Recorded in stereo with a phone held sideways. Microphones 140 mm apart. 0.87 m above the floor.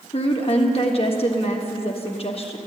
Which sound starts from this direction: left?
A woman speaking, at 0.1 s.